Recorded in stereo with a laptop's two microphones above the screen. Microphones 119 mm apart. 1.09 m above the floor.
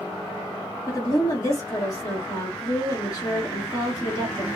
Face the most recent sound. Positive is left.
turn(degrees=30)  # may be behind; listen again after turning